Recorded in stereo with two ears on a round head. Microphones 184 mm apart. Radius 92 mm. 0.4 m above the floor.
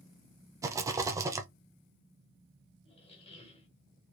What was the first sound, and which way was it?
A rattle, 15° right (ahead or behind).